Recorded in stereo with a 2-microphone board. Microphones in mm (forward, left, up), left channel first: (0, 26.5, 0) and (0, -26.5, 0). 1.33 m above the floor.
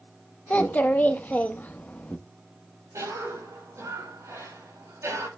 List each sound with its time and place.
0.5 s a child speaking: 30° left (ahead or behind), 0.8 m
2.9 s a cough: 70° right (ahead or behind), 5.5 m